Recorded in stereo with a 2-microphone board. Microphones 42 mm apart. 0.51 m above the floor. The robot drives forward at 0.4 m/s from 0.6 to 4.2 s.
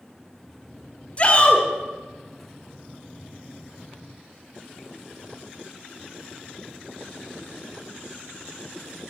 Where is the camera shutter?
I don't hear a camera shutter.